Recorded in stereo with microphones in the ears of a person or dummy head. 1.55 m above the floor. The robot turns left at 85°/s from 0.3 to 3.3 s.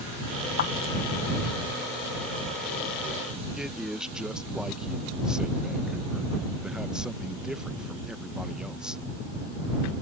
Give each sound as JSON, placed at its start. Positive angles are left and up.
{"t": 0.6, "sound": "a clap", "side_deg": 55}
{"t": 3.6, "sound": "a man speaking", "side_deg": 0}